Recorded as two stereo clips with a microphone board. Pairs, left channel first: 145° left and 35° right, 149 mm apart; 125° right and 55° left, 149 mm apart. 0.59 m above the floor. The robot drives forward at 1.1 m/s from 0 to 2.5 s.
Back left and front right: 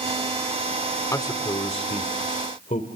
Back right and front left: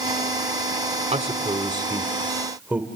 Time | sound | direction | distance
1.1 | a man speaking | 80° left | 1.7 m